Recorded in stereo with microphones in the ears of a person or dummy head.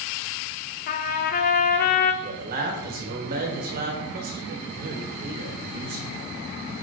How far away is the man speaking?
About 1.5 m.